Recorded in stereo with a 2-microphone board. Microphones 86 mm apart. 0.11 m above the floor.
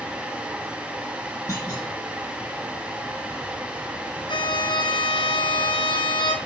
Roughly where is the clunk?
Left.